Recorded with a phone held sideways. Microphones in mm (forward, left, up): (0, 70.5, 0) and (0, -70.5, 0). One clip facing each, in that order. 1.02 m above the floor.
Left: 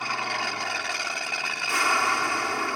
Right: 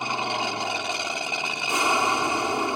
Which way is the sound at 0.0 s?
20° right (ahead or behind).